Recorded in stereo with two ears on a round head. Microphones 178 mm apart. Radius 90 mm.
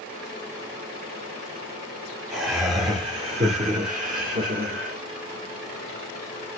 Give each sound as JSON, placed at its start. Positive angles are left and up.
{"t": 2.3, "sound": "laughter", "side_deg": -10, "distance_m": 1.0}